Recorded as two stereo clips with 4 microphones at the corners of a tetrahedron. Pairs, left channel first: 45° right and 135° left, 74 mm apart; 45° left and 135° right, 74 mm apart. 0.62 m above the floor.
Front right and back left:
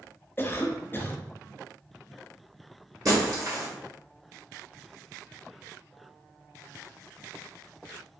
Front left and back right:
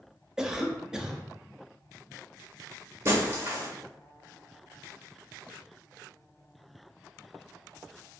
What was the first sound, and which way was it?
A cough, 60° right.